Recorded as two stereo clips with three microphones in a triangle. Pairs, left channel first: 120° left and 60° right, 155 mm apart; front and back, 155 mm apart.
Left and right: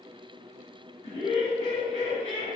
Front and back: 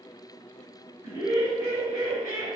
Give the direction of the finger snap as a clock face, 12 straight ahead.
I don't hear a finger snap.